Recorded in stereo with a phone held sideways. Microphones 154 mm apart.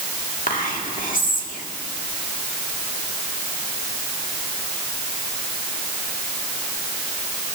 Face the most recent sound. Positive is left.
turn(degrees=60)  # may be behind; listen again after turning